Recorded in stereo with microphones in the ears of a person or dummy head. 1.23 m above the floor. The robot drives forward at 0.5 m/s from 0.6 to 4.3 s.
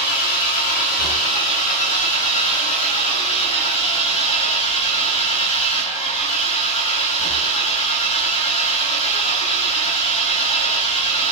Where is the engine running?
45° left (ahead or behind), 3 m; by 11.3 s 30° left (ahead or behind), 4.5 m.